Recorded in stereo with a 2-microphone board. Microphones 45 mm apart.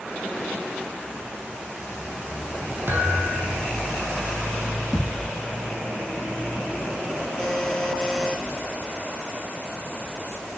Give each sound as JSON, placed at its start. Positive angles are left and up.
{"t": 2.9, "sound": "a thud", "side_deg": -45, "distance_m": 1.9}
{"t": 4.9, "sound": "a thud", "side_deg": 0, "distance_m": 3.5}
{"t": 7.4, "sound": "a buzzer", "side_deg": 15, "distance_m": 1.4}